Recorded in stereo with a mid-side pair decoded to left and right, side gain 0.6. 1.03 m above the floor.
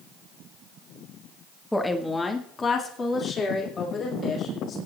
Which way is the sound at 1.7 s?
5° left.